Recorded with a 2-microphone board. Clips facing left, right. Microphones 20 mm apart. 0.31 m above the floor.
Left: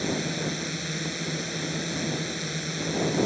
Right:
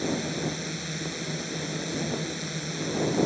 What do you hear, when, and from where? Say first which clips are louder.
0.0 s a drone: left 1 dB; 15° left (ahead or behind)